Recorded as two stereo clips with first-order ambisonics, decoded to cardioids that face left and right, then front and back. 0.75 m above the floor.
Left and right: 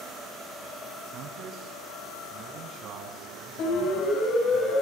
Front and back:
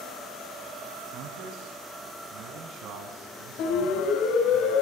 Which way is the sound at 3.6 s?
40° left.